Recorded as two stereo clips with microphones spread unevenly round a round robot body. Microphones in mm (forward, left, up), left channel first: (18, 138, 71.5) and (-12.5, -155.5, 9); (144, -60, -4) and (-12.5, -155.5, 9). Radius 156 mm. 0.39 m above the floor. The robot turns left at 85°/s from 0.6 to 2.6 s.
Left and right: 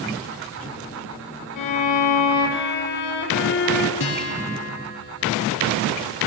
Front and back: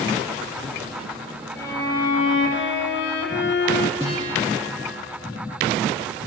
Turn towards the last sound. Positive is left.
turn(degrees=140)